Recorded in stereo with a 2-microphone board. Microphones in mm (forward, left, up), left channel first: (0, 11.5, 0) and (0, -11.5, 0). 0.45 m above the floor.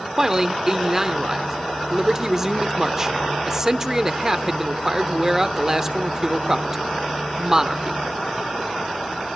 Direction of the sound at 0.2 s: 20° right (ahead or behind).